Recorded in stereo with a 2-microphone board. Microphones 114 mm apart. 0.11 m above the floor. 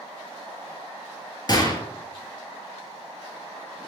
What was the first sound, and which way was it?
A gunshot, 40° left (ahead or behind).